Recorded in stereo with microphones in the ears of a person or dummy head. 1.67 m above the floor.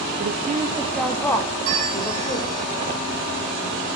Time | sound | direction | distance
0.2 | a woman speaking | 55° right (ahead or behind) | 1.0 m
1.6 | a bell | 40° right (ahead or behind) | 2 m